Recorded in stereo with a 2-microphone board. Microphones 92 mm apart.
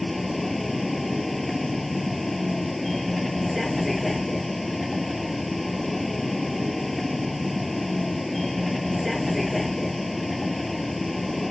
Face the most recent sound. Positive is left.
turn(degrees=0)  # may be behind; listen again after turning